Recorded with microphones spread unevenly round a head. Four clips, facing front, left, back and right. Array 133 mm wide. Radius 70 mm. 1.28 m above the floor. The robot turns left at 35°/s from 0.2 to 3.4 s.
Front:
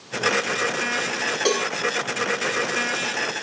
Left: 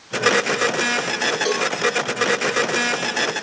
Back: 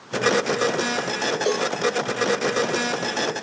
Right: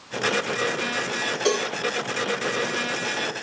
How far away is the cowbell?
About 1.6 m.